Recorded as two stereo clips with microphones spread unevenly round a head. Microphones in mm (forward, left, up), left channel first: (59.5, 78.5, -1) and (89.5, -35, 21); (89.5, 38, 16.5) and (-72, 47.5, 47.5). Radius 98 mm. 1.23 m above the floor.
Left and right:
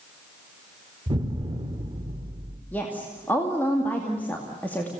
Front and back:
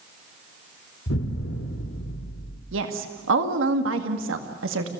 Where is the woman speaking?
175° right, 2 m.